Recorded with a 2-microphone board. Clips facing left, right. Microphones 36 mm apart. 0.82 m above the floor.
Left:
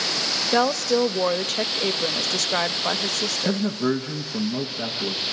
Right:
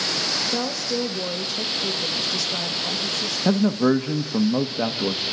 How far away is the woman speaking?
About 0.7 m.